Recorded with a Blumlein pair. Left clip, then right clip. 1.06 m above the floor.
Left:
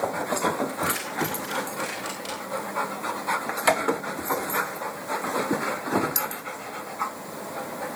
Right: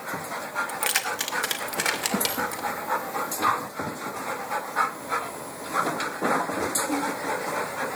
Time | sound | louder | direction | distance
0.7 | keys jangling | right 2 dB | 35° right | 1.5 m